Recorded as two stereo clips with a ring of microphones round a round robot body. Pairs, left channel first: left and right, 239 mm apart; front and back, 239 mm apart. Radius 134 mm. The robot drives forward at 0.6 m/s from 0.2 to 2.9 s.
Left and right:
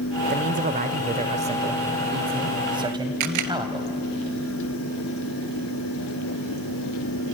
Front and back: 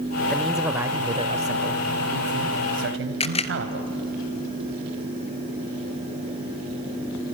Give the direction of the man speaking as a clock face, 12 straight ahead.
3 o'clock.